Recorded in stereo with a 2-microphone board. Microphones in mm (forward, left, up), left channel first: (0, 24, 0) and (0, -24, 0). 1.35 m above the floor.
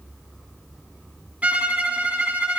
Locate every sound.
1.4 s a violin: 25° right (ahead or behind), 2 m